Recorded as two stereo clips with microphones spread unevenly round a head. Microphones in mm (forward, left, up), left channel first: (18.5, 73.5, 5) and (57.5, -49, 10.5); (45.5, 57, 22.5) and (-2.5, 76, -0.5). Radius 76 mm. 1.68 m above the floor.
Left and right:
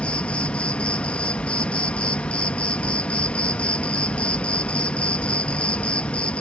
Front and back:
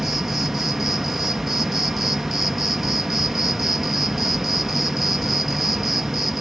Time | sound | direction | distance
0.0 | an insect | 30° left | ?